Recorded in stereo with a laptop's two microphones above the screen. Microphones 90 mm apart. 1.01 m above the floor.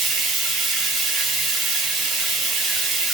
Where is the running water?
Centre (ahead or behind), 1.0 m.